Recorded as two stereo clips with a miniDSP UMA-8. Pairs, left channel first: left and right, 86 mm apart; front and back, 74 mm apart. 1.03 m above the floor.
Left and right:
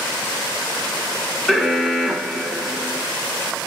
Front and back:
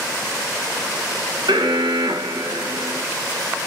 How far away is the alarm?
About 0.7 m.